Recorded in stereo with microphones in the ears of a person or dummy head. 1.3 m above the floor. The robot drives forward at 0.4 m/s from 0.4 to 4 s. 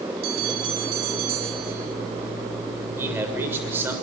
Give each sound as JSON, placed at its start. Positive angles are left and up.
{"t": 0.2, "sound": "a bell", "side_deg": -50, "distance_m": 4.0}
{"t": 3.0, "sound": "a man speaking", "side_deg": -10, "distance_m": 6.5}